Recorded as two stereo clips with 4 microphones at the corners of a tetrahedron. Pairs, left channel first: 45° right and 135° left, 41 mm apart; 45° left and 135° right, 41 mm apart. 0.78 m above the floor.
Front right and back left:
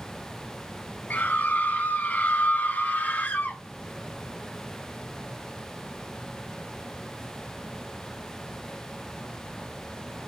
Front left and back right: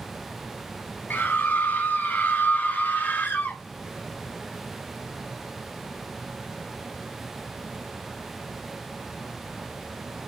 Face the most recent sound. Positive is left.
turn(degrees=-5)